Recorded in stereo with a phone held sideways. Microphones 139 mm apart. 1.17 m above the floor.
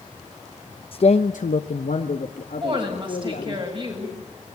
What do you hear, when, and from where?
0.9 s a man speaking: 45° left (ahead or behind), 0.7 m; by 3.6 s 70° left (ahead or behind), 2.5 m
2.6 s a woman speaking: 40° right (ahead or behind), 7 m